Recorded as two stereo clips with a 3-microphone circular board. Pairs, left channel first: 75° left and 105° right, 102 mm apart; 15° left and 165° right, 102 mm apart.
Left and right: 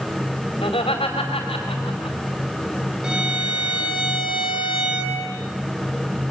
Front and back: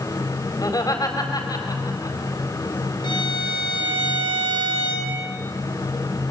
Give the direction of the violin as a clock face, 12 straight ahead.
1 o'clock.